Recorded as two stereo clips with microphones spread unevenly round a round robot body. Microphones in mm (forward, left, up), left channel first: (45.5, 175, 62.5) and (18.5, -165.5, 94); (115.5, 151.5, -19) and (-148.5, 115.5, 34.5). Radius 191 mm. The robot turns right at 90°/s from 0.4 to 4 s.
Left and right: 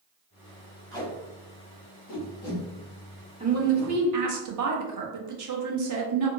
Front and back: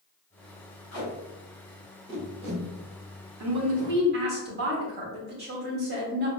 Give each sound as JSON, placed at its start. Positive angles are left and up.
{"t": 0.9, "sound": "tape being pulled", "azimuth_deg": 5, "distance_m": 2.0}
{"t": 3.4, "sound": "a woman speaking", "azimuth_deg": -165, "distance_m": 0.9}